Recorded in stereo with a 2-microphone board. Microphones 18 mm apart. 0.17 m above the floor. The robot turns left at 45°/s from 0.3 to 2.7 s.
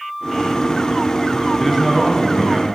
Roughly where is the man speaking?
Ahead.